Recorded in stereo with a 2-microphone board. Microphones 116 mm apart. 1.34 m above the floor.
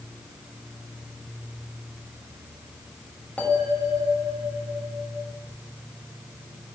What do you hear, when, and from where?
3.4 s a bell: 15° left (ahead or behind), 3 m